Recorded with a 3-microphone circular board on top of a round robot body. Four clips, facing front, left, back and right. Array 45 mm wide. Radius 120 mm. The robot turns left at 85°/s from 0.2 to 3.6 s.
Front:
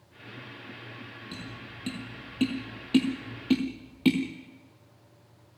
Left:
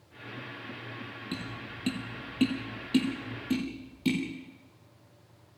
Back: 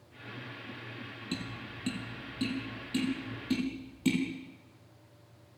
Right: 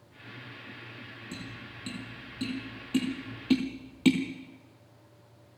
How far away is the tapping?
About 4 m.